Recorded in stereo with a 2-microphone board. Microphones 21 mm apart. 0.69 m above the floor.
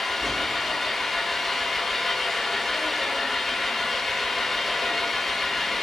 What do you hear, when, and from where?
0.0 s an engine running: 5° left (ahead or behind), 6.5 m